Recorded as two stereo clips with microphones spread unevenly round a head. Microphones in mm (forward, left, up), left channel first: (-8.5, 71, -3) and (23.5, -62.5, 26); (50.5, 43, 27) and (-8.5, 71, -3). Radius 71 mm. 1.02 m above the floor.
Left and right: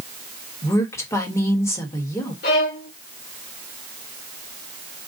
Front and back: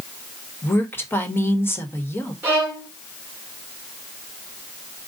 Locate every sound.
0.6 s a woman speaking: 35° left, 1.3 m
2.4 s a violin: 90° left, 2.0 m